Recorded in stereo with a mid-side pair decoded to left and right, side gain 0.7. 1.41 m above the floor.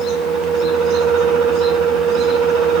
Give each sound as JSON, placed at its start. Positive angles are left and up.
{"t": 0.0, "sound": "a fan", "azimuth_deg": -70, "distance_m": 1.6}